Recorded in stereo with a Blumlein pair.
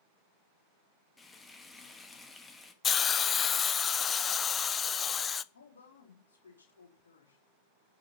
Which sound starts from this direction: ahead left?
A woman speaking, at 5.5 s.